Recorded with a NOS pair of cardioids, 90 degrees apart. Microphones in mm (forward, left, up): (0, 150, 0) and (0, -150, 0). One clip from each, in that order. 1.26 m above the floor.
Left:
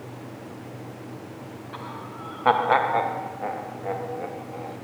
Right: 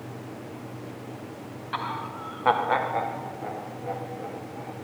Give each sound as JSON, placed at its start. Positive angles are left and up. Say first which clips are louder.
{"t": 1.7, "sound": "laughter", "louder": "right 7 dB", "azimuth_deg": -45, "distance_m": 0.6}